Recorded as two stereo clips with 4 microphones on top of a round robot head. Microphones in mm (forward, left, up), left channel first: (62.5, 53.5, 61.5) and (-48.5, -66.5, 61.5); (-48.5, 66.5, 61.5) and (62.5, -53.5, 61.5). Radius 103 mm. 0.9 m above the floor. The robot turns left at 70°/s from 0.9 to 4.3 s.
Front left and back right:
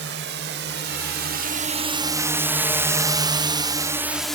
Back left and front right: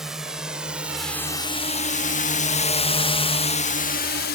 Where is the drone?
135° right; by 4.3 s 135° left.